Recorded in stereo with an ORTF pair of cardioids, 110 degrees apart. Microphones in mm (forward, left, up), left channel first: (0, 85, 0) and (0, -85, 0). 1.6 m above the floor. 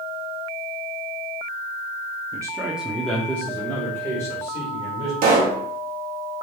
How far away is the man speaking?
About 0.8 m.